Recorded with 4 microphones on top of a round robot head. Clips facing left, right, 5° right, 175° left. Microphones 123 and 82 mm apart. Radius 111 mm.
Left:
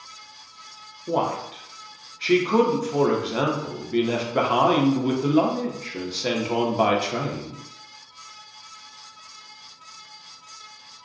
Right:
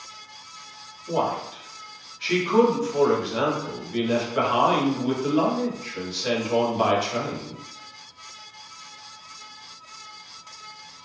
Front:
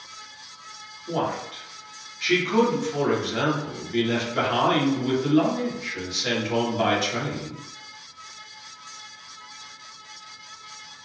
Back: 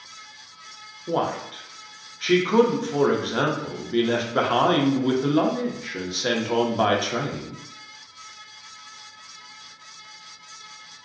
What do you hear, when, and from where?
1.1 s a man speaking: 125° left, 0.7 m